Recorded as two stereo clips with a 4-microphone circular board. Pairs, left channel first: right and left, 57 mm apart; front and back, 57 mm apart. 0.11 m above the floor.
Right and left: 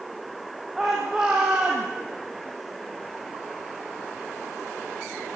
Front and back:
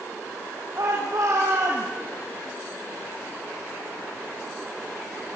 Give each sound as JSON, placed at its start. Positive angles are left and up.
{"t": 0.8, "sound": "a shout", "azimuth_deg": 175, "distance_m": 3.5}